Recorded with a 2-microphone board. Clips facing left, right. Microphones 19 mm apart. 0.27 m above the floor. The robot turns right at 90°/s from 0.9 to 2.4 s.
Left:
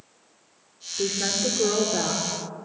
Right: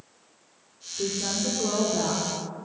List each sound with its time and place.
1.0 s a woman speaking: 55° left, 5 m; by 2.7 s 175° right, 5 m